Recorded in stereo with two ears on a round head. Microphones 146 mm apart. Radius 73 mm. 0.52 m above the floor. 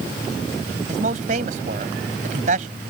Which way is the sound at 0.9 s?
50° right (ahead or behind).